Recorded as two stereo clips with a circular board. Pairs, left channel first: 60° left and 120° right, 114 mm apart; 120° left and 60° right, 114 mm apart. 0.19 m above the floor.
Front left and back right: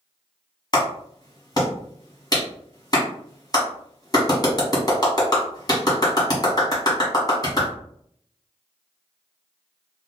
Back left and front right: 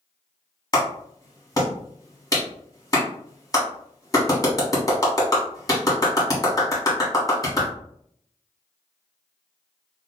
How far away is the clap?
About 1.4 m.